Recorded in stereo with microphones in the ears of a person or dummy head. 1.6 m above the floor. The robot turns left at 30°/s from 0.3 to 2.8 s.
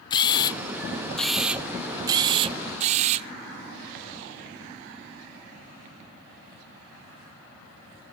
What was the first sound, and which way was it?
A camera shutter, 30° left.